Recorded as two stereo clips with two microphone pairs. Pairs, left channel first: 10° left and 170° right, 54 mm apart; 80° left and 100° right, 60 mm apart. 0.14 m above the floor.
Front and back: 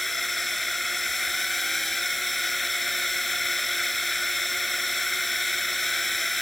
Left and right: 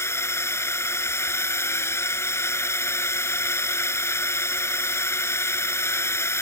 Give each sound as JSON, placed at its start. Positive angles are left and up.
{"t": 0.0, "sound": "a drone", "azimuth_deg": 95}